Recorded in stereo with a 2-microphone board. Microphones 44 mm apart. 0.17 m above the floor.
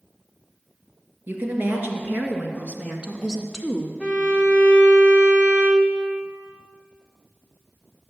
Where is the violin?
25° right (ahead or behind), 1.4 m.